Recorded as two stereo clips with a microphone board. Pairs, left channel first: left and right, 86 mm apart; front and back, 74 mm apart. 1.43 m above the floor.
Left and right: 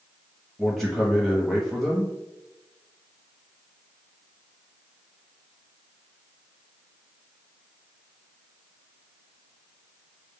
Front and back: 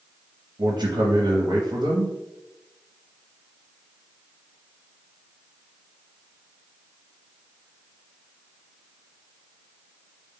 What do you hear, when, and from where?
0.6 s a man speaking: 175° left, 0.7 m